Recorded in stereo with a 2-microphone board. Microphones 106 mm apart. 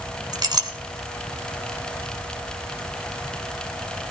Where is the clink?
40° right (ahead or behind), 1.9 m.